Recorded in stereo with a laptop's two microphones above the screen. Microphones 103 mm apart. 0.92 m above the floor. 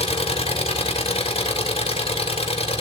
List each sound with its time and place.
0.0 s an engine running: 80° left, 2.5 m